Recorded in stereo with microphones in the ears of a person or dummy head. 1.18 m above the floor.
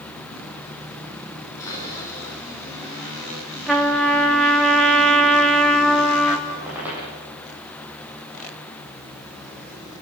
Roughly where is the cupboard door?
Centre.